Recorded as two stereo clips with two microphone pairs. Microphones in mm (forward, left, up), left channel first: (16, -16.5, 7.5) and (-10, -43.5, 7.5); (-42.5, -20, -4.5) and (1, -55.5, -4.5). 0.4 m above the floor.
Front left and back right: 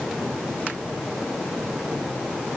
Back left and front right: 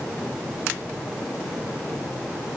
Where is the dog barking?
I don't hear a dog barking.